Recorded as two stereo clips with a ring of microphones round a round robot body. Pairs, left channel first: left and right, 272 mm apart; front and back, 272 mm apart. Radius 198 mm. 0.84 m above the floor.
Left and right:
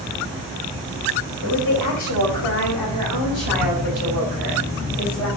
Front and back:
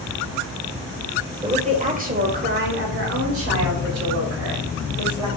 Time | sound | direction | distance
1.4 | a woman speaking | 110° left | 3 m